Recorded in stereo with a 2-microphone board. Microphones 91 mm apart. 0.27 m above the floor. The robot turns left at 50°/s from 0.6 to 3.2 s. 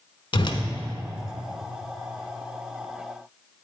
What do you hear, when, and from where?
0.3 s a whoosh: 60° left (ahead or behind), 0.7 m